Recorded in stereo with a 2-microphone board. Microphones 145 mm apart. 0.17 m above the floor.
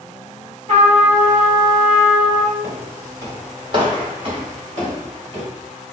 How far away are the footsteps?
About 0.9 m.